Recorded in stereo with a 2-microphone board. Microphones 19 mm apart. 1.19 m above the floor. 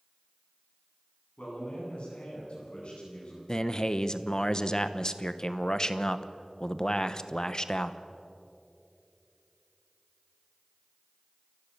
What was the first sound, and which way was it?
A man speaking, 75° left (ahead or behind).